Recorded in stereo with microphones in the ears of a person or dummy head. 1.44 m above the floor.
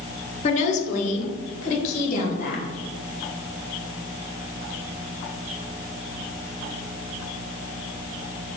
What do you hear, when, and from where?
0.4 s a woman speaking: 45° left (ahead or behind), 0.7 m; by 2.7 s 55° left (ahead or behind), 2.0 m